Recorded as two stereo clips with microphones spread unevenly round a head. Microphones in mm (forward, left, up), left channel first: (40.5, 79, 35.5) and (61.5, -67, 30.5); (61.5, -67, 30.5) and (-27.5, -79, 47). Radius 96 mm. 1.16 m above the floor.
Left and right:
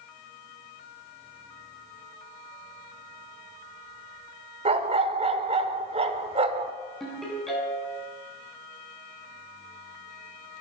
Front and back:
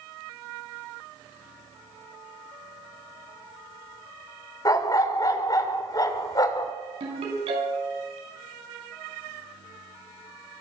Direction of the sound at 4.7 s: 40° right.